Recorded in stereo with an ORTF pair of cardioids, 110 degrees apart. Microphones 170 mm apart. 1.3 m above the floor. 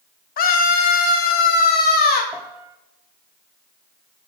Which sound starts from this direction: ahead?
A piano, at 2.3 s.